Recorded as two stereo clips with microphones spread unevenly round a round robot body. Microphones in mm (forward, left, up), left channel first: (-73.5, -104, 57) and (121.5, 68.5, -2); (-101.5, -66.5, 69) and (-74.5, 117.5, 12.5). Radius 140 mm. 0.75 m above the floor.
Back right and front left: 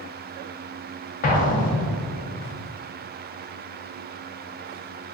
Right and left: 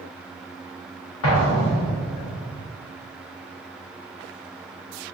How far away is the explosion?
About 0.5 m.